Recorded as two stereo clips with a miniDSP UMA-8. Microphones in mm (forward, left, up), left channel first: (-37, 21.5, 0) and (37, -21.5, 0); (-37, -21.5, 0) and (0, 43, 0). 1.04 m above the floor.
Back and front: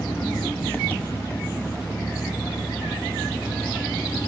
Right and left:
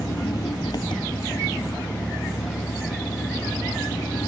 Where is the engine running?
140° right.